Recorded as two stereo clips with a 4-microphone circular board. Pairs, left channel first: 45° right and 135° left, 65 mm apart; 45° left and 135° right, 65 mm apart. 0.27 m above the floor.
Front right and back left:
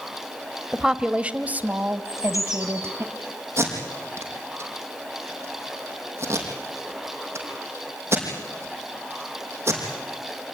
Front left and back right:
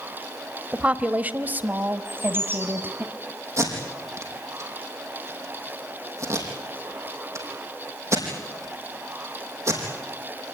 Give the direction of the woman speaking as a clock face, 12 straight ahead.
5 o'clock.